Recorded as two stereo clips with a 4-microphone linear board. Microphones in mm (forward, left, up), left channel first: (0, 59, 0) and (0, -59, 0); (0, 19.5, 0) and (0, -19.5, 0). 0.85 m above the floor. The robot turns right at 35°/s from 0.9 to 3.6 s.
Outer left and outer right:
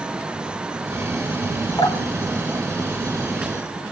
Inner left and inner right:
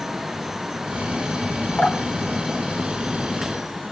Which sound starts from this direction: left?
Dripping, at 1.8 s.